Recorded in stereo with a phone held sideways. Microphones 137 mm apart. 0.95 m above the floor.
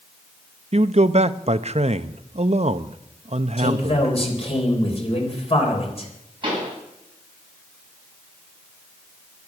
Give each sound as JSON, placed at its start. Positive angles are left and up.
{"t": 0.7, "sound": "a man speaking", "side_deg": -55, "distance_m": 0.7}
{"t": 3.6, "sound": "a man speaking", "side_deg": 45, "distance_m": 4.0}
{"t": 6.4, "sound": "a pop", "side_deg": -40, "distance_m": 7.5}